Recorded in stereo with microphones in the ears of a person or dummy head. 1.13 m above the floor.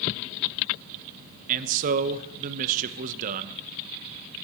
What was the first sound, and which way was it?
A man speaking, 45° right (ahead or behind).